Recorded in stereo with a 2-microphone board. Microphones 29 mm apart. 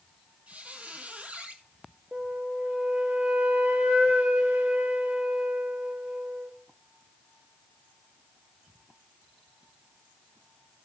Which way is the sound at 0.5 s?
45° right (ahead or behind).